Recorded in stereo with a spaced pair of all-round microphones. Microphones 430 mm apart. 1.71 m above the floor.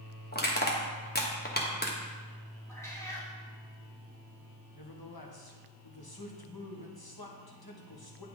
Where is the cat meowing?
5° left (ahead or behind), 2 m.